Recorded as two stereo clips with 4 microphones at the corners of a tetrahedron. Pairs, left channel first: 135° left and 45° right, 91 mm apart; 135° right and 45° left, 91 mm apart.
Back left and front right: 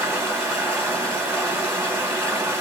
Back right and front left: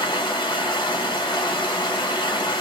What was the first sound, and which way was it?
Running water, 110° right.